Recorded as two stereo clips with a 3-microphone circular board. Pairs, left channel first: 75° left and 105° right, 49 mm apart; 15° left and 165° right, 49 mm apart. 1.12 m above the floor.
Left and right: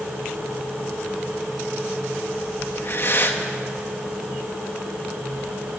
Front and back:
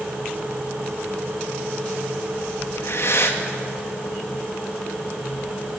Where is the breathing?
40° left, 2 m.